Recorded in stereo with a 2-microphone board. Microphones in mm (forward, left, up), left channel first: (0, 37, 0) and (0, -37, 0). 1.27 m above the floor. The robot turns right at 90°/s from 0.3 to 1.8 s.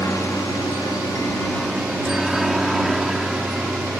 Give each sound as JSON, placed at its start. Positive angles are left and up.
{"t": 0.0, "sound": "a helicopter", "side_deg": 40}